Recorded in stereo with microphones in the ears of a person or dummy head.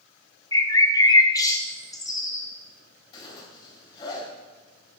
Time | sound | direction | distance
0.5 | a bird | 15° left (ahead or behind) | 0.6 m
3.1 | a zipper | 30° left (ahead or behind) | 3.5 m